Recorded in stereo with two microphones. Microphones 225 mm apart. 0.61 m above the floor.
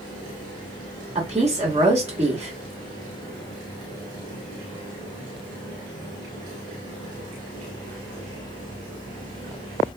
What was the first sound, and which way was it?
A woman speaking, 30° right (ahead or behind).